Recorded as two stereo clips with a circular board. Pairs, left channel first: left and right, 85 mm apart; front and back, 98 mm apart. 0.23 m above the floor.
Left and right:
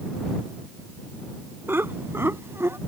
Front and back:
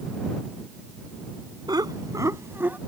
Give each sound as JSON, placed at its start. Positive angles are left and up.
{"t": 1.7, "sound": "laughter", "azimuth_deg": -145}